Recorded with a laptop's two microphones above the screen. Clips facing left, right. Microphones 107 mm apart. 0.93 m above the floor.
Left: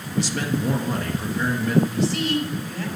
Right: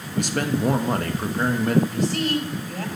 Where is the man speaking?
55° right (ahead or behind), 1.2 m.